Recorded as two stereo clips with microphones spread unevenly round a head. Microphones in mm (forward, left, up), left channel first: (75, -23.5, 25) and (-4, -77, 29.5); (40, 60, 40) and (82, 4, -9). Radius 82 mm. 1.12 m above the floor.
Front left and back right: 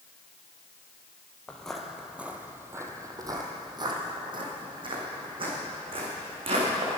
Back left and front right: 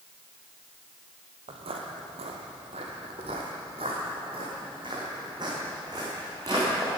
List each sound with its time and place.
1.5 s footsteps: 45° right, 1.5 m; by 7.0 s 130° right, 5 m